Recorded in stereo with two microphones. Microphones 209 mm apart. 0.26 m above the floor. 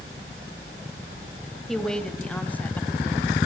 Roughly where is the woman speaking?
Centre.